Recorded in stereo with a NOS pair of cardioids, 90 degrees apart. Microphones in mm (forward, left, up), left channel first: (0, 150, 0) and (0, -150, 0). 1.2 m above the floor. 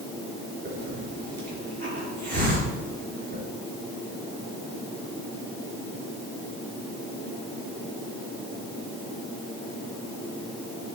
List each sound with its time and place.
0.7 s a hiss: 30° right, 3.5 m